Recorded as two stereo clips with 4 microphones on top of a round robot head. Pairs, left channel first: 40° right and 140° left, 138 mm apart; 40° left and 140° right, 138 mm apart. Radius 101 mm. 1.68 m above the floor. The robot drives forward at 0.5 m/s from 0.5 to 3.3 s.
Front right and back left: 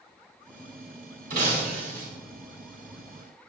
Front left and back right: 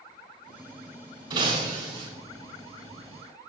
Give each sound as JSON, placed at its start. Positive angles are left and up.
{"t": 1.3, "sound": "breaking glass", "azimuth_deg": 160, "distance_m": 8.5}